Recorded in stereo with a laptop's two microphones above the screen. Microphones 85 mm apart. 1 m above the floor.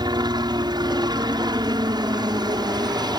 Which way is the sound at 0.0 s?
55° right (ahead or behind).